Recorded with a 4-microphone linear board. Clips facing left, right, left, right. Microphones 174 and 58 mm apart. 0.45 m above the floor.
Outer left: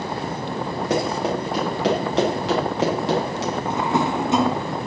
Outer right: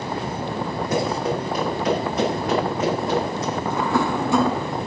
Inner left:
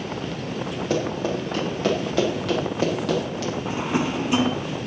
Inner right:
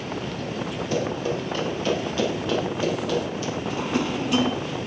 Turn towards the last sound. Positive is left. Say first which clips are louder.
# even, inner left 1 dB
turn(degrees=20)  # may be behind; listen again after turning